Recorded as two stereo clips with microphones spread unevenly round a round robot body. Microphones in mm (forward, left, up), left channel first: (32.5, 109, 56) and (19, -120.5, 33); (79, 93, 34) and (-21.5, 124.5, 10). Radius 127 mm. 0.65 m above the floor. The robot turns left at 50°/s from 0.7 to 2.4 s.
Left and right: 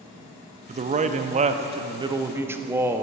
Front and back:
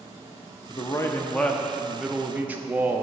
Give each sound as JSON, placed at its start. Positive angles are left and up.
{"t": 0.7, "sound": "a man speaking", "azimuth_deg": -75, "distance_m": 0.6}